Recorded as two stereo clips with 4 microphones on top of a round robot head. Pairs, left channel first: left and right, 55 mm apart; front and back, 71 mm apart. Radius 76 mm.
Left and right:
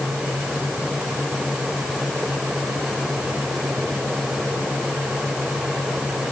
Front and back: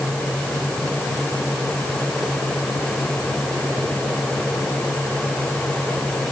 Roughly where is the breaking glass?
No breaking glass in this recording.